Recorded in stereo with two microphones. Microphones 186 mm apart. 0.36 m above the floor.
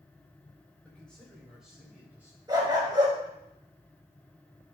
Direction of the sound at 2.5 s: 25° right (ahead or behind).